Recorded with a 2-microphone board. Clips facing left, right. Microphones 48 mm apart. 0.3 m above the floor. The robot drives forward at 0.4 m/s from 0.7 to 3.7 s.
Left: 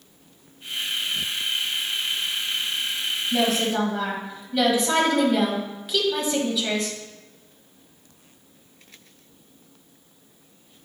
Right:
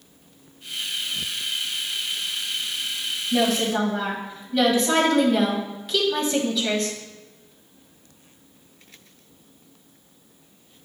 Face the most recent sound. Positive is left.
turn(degrees=5)  # may be behind; listen again after turning